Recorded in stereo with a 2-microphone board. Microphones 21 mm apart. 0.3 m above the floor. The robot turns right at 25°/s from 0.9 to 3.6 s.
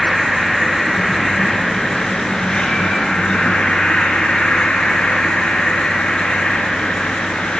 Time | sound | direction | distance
0.0 | an insect | 5° right | 2 m